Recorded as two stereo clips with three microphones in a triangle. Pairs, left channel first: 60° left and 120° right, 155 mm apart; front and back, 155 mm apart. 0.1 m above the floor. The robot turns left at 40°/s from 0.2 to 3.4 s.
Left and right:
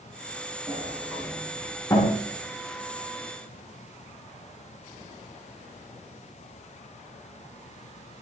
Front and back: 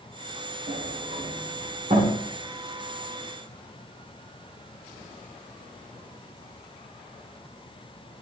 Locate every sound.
0.7 s a sliding door: straight behind, 4.5 m; by 2.2 s 115° left, 4.5 m